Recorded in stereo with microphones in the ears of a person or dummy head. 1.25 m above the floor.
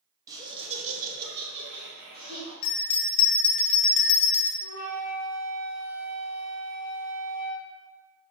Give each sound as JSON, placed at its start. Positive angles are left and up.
{"t": 0.3, "sound": "laughter", "side_deg": -10, "distance_m": 0.9}
{"t": 2.6, "sound": "a bell", "side_deg": 50, "distance_m": 0.7}
{"t": 4.6, "sound": "a flute", "side_deg": -40, "distance_m": 0.9}